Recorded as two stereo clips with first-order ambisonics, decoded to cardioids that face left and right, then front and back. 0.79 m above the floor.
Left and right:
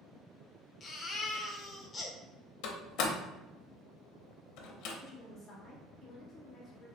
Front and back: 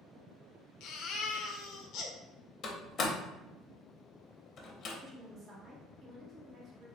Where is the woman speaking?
130° left, 1.0 m.